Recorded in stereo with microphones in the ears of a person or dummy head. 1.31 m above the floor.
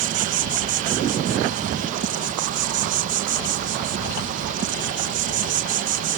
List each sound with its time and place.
0.0 s an insect: 45° right (ahead or behind)